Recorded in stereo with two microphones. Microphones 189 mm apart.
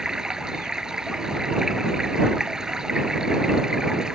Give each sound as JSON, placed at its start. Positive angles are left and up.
{"t": 0.0, "sound": "running water", "side_deg": -5}